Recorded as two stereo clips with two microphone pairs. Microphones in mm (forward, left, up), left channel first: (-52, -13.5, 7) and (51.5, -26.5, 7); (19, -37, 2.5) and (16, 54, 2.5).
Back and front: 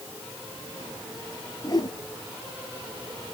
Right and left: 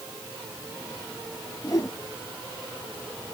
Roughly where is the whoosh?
Behind right.